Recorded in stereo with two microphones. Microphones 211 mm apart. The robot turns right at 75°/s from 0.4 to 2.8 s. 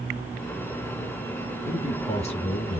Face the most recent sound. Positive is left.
turn(degrees=110)